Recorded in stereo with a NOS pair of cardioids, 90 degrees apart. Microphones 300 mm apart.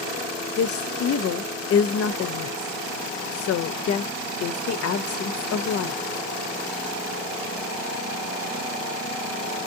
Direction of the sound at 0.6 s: 55° left.